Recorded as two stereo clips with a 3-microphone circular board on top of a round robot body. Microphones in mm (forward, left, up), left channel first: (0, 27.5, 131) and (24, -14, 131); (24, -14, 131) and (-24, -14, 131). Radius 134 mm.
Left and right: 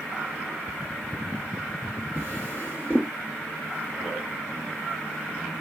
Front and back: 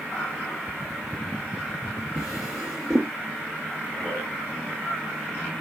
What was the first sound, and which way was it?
A drawer, straight behind.